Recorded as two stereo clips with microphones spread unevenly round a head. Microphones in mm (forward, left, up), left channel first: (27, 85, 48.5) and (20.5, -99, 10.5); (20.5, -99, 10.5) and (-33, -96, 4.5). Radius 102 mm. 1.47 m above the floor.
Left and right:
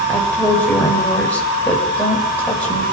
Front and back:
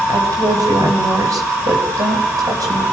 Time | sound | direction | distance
0.1 | a woman speaking | 170° left | 7.5 m